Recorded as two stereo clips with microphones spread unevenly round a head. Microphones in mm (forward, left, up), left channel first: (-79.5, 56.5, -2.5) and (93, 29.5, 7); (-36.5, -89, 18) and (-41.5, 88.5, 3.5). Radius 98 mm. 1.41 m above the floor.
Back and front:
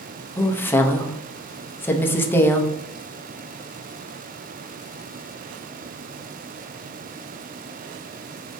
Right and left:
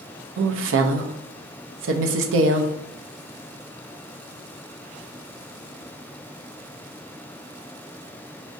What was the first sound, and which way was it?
A woman speaking, 95° left.